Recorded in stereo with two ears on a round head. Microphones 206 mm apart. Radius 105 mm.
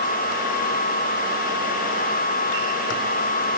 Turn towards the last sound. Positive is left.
No sound to turn to.